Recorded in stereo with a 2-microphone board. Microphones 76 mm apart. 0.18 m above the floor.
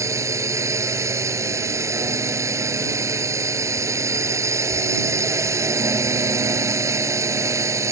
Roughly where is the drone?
Right.